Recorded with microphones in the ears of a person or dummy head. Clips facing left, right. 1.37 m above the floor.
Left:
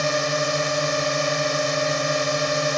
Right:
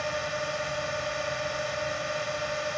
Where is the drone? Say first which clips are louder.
Left 9 dB; 85° left.